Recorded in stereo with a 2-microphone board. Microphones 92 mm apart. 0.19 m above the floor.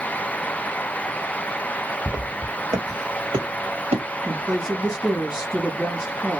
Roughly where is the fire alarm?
I don't hear a fire alarm.